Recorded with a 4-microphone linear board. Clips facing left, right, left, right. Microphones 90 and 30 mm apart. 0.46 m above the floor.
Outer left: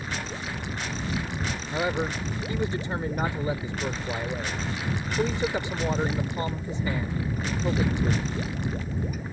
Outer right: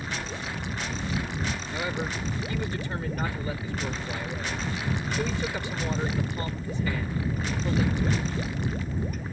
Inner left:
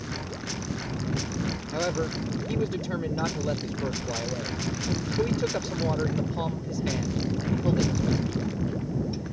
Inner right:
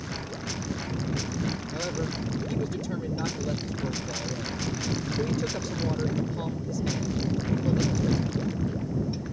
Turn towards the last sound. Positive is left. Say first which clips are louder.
# outer left 7 dB, inner left 3 dB
turn(degrees=25)  # may be behind; listen again after turning